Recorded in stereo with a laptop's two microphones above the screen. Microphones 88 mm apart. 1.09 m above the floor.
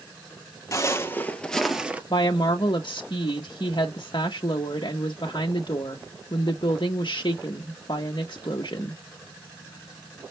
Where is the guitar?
No guitar in this recording.